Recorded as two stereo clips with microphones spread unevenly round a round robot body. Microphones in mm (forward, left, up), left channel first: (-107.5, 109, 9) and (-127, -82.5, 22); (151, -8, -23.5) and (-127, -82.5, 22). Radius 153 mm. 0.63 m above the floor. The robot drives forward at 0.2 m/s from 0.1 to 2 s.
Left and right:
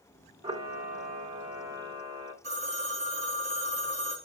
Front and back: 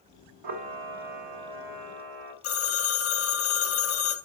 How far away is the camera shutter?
About 1.9 m.